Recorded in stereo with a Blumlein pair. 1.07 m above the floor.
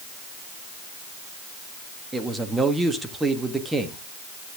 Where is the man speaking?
5° right, 1.5 m.